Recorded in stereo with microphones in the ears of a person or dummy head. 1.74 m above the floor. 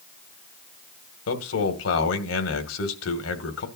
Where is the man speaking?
90° left, 2.5 m.